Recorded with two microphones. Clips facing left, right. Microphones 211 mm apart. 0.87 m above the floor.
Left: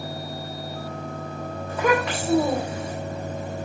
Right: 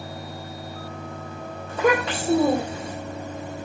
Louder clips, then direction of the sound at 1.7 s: Right 1 dB; 25° right (ahead or behind).